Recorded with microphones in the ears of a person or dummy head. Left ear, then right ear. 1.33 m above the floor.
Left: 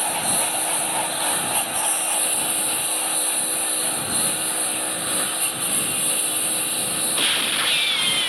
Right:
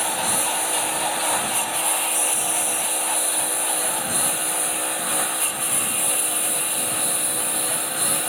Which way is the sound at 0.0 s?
20° right (ahead or behind).